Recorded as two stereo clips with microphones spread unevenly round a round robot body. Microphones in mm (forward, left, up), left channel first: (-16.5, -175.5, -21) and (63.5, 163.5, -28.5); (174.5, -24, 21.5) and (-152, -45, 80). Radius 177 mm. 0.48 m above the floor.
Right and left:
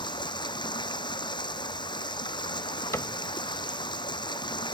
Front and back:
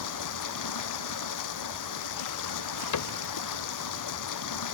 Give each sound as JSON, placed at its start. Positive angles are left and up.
{"t": 0.0, "sound": "running water", "azimuth_deg": -25}
{"t": 2.9, "sound": "a cupboard door", "azimuth_deg": -20}